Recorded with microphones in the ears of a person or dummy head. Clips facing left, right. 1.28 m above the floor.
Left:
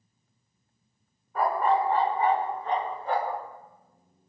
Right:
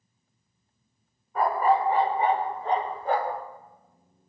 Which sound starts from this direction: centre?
A dog barking, at 1.4 s.